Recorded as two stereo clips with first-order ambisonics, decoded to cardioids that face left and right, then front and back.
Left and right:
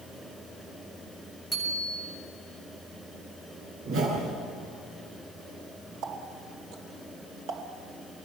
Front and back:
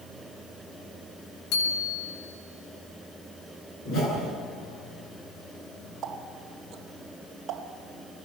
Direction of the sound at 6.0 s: 120° right.